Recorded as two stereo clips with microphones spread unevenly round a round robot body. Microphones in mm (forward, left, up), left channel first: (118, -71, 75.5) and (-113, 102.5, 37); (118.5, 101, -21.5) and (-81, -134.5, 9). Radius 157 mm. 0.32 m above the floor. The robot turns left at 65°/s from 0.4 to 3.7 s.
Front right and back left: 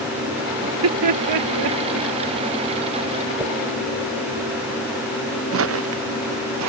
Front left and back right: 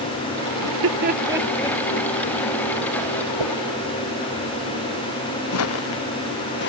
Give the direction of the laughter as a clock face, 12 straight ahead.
5 o'clock.